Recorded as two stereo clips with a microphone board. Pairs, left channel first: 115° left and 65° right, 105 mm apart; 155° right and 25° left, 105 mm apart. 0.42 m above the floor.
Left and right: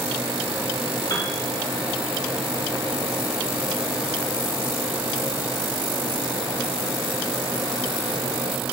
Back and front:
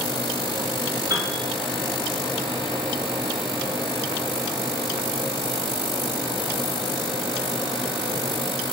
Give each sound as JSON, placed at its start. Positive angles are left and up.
{"t": 1.1, "sound": "a piano", "azimuth_deg": 70, "distance_m": 1.9}